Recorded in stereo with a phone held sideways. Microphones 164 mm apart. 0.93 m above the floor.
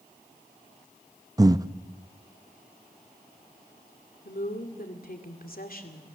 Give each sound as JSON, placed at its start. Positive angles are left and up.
{"t": 1.4, "sound": "breathing", "side_deg": -20, "distance_m": 0.6}
{"t": 4.2, "sound": "a woman speaking", "side_deg": 65, "distance_m": 2.5}